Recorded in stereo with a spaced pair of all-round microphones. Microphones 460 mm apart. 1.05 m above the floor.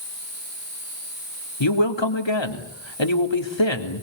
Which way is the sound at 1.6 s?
70° left (ahead or behind).